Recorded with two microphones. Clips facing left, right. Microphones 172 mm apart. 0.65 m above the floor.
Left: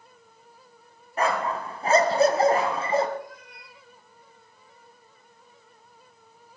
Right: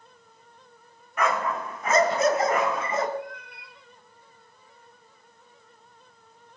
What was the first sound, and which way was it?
A dog barking, 30° left (ahead or behind).